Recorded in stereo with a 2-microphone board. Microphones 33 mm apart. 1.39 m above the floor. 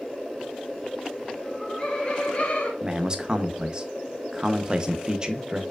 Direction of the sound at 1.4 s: 20° left (ahead or behind).